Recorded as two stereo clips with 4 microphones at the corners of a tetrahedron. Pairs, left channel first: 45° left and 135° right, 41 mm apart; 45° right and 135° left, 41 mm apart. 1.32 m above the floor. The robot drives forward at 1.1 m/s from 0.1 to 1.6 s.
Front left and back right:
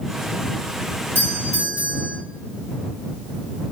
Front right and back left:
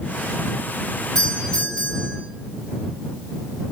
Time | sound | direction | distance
1.1 | a doorbell | 105° right | 3 m